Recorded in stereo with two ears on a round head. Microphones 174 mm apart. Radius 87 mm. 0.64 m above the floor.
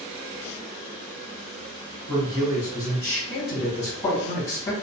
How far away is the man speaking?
About 1.7 m.